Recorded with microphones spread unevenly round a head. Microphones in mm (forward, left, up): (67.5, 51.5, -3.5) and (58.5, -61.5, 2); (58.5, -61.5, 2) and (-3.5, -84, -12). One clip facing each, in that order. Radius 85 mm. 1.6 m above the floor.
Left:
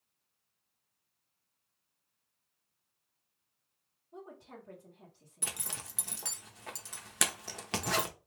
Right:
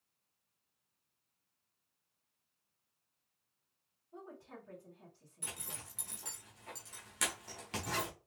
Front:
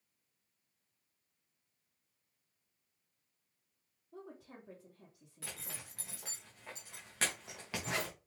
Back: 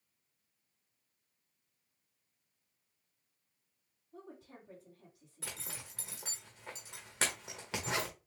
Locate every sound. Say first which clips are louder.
4.1 s a woman speaking: left 2 dB, front 1 dB; 20° left, 1.7 m
5.4 s a zipper: left 4 dB, back 2 dB; 115° left, 0.7 m